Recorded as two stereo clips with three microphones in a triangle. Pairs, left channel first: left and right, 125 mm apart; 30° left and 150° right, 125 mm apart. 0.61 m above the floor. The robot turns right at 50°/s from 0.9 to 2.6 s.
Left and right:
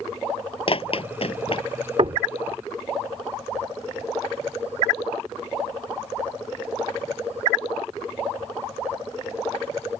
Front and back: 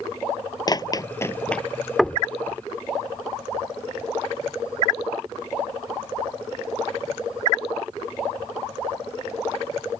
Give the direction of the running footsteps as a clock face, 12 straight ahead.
9 o'clock.